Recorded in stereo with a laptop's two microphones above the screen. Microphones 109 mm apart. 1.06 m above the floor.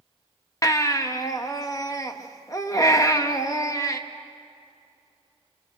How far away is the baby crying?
About 1.0 m.